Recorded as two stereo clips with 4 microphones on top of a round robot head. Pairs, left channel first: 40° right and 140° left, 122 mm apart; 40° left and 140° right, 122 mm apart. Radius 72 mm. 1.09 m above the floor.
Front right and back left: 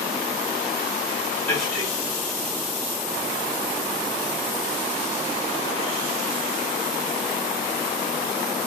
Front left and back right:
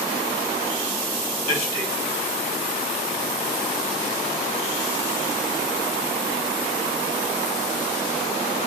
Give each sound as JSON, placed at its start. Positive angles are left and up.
{"t": 1.4, "sound": "a man speaking", "azimuth_deg": 40, "distance_m": 2.5}